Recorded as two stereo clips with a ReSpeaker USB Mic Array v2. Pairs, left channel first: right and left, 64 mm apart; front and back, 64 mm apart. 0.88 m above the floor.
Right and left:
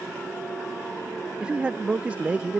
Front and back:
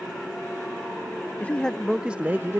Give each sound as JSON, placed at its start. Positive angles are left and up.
{"t": 1.4, "sound": "a man speaking", "azimuth_deg": 35}